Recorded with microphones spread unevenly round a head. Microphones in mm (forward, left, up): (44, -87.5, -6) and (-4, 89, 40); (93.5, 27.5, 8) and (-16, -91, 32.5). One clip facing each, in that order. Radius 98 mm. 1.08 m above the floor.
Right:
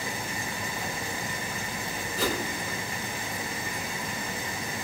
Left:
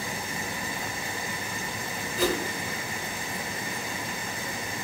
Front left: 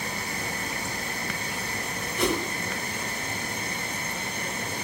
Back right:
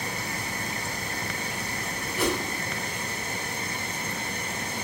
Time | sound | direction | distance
2.2 | a whoosh | 45° right | 1.4 m